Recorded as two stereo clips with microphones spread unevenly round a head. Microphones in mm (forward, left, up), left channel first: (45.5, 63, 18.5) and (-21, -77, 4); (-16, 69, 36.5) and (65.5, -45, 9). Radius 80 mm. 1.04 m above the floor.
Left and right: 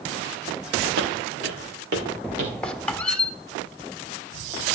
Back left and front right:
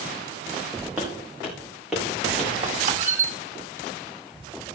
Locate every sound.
1.0 s footsteps: 140° right, 5 m; by 2.5 s 145° right, 4.5 m
2.6 s a squeak: 20° right, 1.8 m